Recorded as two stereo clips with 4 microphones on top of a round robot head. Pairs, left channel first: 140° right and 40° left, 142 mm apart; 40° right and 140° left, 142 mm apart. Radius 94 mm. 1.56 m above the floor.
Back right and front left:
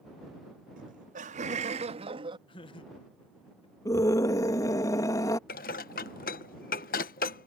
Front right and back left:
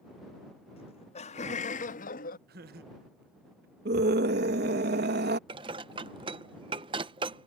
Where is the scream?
150° left.